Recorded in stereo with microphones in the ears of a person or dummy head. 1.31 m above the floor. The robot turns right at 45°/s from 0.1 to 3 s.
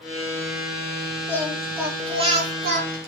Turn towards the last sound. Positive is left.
turn(degrees=-115)